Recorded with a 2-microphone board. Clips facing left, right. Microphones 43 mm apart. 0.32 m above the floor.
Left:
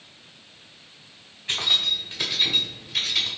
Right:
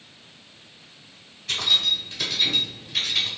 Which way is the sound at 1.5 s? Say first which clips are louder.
Right 1 dB; 25° left (ahead or behind).